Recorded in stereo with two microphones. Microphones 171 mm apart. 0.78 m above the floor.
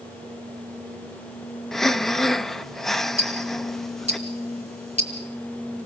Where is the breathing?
Centre (ahead or behind), 0.6 m.